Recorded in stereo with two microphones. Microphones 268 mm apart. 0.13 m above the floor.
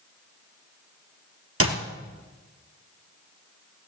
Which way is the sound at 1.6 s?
55° right (ahead or behind).